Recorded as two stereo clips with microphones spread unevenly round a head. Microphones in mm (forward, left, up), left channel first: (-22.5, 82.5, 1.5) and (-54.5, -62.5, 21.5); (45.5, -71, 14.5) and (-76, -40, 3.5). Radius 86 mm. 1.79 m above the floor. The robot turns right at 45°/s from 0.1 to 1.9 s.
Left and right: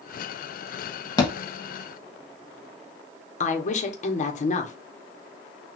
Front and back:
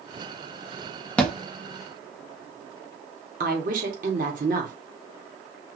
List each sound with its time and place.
1.2 s a thud: 35° left, 1.1 m; by 1.3 s 40° left, 1.1 m
3.4 s a woman speaking: 120° left, 1.2 m